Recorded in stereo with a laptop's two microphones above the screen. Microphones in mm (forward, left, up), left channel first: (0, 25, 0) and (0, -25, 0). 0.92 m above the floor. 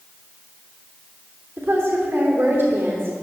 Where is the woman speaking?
50° right (ahead or behind), 3 m.